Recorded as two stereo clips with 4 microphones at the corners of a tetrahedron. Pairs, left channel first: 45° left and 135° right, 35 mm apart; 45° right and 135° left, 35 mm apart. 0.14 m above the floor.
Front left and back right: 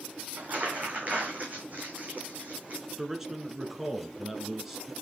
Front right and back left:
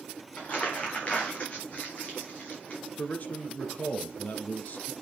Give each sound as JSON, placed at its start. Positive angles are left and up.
{"t": 0.4, "sound": "crumpling", "azimuth_deg": -95, "distance_m": 3.5}
{"t": 3.0, "sound": "a man speaking", "azimuth_deg": -60, "distance_m": 1.5}